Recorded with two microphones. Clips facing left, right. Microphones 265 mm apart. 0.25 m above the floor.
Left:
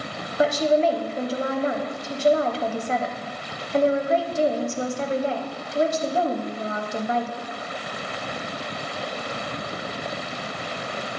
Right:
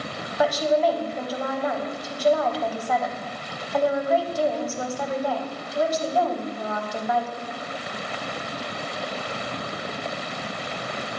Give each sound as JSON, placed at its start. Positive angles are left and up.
{"t": 0.4, "sound": "a woman speaking", "side_deg": 25, "distance_m": 1.0}